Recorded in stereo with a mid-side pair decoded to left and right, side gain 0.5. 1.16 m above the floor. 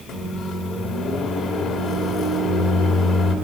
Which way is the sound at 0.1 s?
65° left.